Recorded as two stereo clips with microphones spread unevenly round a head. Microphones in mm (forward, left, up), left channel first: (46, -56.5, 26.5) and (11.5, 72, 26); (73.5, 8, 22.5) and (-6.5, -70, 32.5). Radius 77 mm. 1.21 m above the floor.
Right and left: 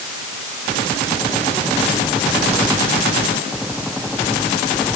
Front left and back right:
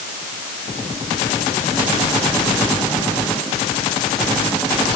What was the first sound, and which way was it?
Only background noise.